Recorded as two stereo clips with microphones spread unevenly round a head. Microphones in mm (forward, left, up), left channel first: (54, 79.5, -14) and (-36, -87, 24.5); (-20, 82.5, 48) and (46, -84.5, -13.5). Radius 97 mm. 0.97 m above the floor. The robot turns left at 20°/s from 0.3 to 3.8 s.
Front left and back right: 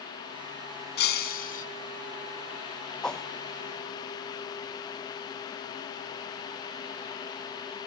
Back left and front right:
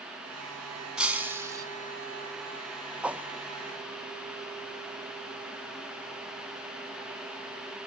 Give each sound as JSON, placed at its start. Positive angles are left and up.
{"t": 1.0, "sound": "breaking glass", "azimuth_deg": 25, "distance_m": 3.0}
{"t": 3.0, "sound": "a whoosh", "azimuth_deg": -10, "distance_m": 1.0}